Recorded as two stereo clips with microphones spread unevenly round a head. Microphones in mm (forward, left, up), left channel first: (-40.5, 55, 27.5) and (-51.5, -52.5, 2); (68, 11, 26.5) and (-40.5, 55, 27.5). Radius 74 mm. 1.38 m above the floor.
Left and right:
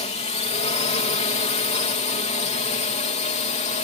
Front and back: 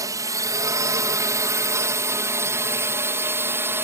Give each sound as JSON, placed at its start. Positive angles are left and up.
{"t": 0.0, "sound": "a drone", "azimuth_deg": 100}